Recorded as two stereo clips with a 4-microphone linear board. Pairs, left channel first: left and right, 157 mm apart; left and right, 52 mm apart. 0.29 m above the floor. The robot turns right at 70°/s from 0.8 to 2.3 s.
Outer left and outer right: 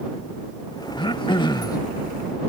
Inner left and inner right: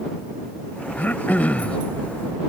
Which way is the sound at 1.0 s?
75° left.